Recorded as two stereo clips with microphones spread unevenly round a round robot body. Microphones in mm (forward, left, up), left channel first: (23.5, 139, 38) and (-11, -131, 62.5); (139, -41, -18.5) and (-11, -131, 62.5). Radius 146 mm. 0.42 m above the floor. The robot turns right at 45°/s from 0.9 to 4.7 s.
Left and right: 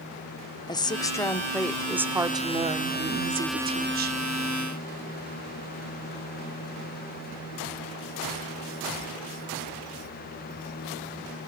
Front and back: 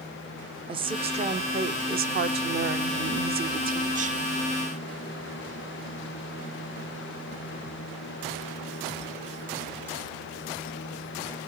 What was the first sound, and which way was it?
A woman speaking, 125° left.